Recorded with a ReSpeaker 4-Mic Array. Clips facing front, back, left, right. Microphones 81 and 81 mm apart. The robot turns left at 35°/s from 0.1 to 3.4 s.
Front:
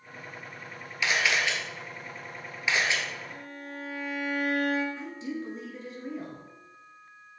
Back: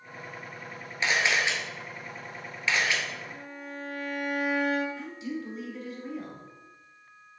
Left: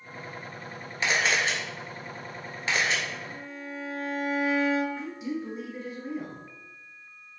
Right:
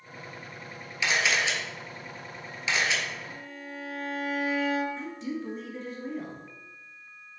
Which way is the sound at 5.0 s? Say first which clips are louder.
Even, left 1 dB; 20° left.